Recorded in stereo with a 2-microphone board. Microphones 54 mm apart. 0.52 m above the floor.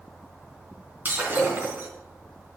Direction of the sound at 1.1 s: 40° right (ahead or behind).